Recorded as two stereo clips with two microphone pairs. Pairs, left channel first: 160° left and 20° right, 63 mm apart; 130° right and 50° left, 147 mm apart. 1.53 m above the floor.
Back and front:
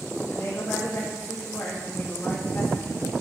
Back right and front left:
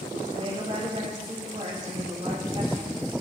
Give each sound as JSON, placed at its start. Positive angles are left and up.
{"t": 0.3, "sound": "a woman speaking", "azimuth_deg": 95, "distance_m": 3.0}